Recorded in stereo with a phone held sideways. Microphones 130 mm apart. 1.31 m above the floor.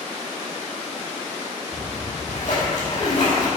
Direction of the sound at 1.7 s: 70° left (ahead or behind).